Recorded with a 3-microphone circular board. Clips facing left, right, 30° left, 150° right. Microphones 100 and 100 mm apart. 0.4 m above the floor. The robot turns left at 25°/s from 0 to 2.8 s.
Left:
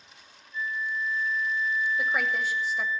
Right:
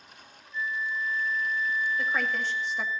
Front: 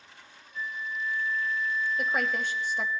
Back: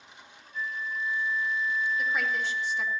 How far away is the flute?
About 0.9 m.